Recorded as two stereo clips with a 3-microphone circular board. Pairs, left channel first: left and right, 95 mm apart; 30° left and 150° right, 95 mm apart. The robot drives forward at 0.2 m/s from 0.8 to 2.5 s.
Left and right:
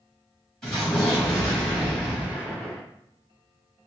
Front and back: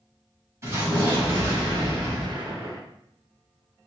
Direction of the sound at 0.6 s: 170° left.